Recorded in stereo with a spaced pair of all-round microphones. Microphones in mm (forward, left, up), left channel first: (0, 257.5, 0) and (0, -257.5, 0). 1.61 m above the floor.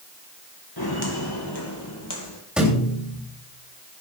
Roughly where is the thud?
Centre.